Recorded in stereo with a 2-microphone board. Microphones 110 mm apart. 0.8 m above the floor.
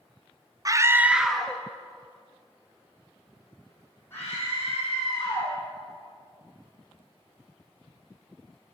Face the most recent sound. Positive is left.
turn(degrees=20)  # may be behind; listen again after turning